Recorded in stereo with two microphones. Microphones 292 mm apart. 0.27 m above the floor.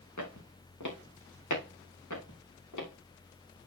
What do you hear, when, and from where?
0.2 s footsteps: 70° left (ahead or behind), 2.5 m; by 2.9 s 80° left, 4 m